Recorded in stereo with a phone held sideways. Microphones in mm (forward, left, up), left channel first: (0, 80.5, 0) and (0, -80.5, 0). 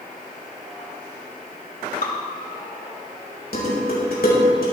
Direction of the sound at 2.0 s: 80° left.